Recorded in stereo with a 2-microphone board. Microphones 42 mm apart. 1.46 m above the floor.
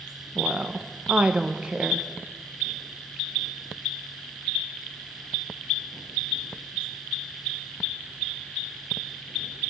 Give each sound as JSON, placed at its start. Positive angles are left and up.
{"t": 0.3, "sound": "a woman speaking", "side_deg": -25, "distance_m": 0.9}